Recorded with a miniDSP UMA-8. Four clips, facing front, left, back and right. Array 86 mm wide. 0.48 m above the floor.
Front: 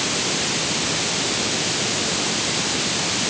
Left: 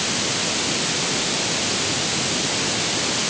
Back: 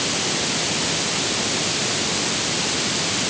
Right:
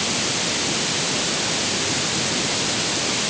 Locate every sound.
Only background noise.